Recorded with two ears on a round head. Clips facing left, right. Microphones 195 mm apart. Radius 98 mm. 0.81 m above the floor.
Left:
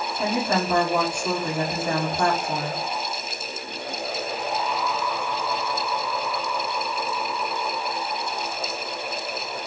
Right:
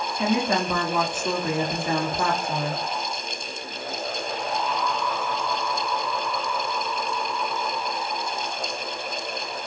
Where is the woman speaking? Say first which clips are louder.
Right 1 dB; 5° right (ahead or behind), 1.6 m.